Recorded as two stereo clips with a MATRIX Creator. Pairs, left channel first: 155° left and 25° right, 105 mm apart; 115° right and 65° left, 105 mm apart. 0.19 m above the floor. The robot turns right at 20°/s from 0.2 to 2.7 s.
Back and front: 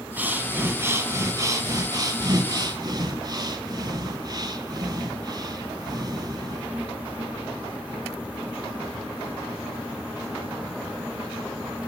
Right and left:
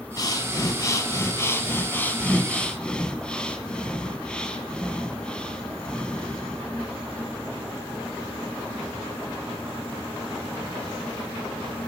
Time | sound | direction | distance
0.2 | breathing | 85° right | 0.6 m